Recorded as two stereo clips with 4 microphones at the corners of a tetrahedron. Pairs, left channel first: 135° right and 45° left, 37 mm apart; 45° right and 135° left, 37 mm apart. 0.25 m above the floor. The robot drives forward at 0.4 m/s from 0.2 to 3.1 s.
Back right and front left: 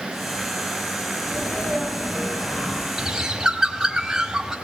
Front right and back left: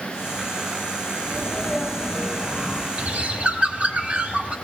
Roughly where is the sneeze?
Right.